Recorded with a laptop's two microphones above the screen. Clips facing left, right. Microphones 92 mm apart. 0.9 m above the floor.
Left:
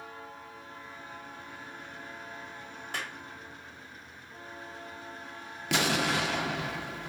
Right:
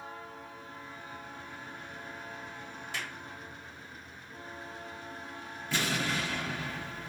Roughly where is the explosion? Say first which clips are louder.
Left 4 dB; left.